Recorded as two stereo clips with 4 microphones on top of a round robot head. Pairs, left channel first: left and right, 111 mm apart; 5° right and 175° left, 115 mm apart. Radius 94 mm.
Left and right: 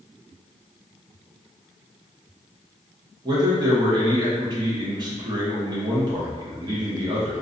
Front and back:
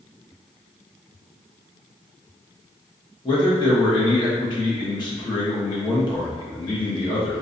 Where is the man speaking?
45° right, 0.7 m.